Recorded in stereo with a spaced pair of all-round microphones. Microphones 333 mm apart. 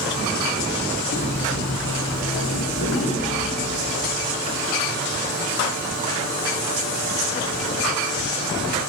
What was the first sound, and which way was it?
Footsteps, 50° left (ahead or behind).